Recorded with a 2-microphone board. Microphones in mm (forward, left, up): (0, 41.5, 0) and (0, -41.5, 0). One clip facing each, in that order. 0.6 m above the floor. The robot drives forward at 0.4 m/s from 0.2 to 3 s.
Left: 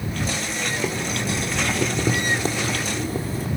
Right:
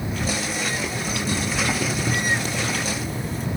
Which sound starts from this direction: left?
Boiling, at 0.7 s.